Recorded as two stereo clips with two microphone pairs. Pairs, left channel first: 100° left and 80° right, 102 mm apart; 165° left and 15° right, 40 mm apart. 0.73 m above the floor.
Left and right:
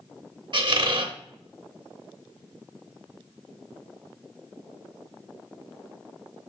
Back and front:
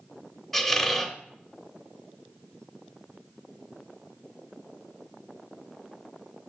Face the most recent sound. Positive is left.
turn(degrees=-115)